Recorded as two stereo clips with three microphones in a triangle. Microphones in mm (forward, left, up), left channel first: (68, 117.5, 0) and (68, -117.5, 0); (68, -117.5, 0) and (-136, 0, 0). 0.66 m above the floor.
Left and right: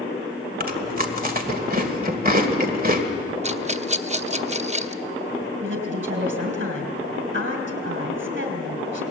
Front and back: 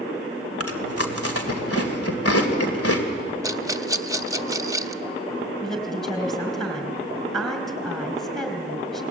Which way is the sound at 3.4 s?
140° right.